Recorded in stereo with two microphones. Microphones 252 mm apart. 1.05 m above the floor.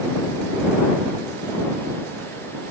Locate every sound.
Only background noise.